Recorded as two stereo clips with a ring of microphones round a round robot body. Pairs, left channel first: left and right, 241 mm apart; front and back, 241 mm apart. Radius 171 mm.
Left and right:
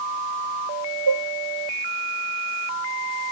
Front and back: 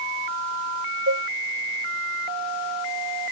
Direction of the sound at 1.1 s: 120° right.